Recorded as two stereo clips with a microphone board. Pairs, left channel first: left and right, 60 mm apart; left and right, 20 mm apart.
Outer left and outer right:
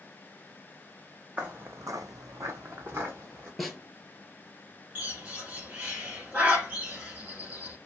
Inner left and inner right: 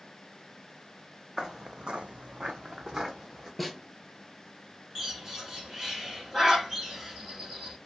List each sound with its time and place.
1.4 s footsteps: 25° right (ahead or behind), 0.7 m; by 3.5 s 35° right (ahead or behind), 1.4 m
3.6 s a snare drum: centre (ahead or behind), 0.6 m
5.0 s a bird: 25° right (ahead or behind), 0.9 m